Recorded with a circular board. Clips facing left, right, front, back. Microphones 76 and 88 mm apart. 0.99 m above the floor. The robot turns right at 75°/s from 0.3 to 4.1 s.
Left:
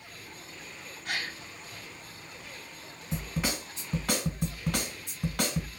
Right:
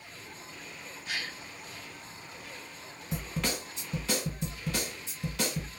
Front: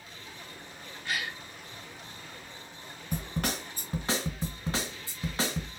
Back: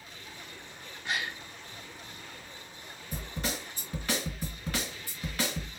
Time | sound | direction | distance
1.1 | a gasp | 110° left | 0.7 m
3.1 | a snare drum | 15° right | 1.6 m